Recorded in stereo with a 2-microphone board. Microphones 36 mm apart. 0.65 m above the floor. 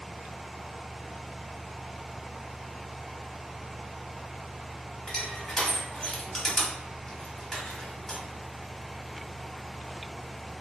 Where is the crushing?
15° left (ahead or behind), 1.0 m.